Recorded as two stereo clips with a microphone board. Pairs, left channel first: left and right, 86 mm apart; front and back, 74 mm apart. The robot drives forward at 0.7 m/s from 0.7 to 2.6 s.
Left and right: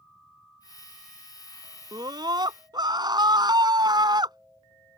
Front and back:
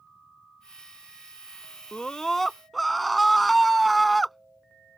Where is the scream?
75° right; by 5.0 s 90° right.